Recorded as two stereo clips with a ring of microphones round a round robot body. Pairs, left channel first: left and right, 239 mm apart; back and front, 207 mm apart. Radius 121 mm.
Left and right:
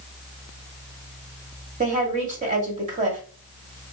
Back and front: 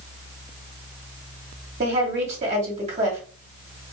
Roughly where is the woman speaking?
Ahead right.